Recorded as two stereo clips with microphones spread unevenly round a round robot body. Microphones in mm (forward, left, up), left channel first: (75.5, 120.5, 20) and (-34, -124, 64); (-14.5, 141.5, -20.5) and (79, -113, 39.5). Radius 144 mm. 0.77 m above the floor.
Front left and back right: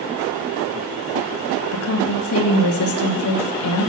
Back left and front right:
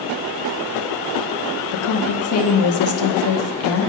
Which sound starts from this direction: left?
A woman speaking, at 1.7 s.